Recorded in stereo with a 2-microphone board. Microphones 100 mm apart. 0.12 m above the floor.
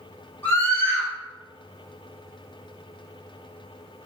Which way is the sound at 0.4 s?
20° left (ahead or behind).